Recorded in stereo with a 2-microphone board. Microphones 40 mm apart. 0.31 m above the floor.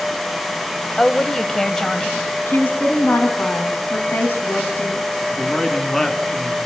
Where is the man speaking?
10° left (ahead or behind), 3.5 m.